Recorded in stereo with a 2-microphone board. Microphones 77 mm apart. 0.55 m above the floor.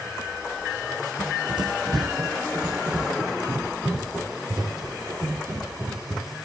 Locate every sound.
1.2 s running footsteps: 70° right (ahead or behind), 1.4 m; by 6.5 s 30° right (ahead or behind), 4.5 m